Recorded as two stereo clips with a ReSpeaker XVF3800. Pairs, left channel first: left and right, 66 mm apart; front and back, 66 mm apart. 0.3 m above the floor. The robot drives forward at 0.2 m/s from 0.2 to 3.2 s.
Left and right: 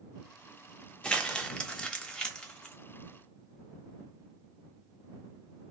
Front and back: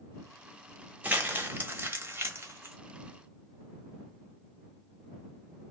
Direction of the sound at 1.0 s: 145° left.